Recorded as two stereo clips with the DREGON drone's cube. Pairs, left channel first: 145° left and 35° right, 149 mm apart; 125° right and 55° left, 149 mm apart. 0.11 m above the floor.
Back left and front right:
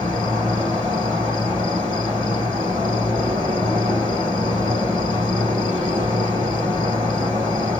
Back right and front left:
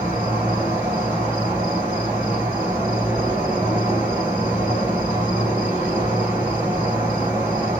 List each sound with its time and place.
0.0 s an insect: straight ahead, 1.9 m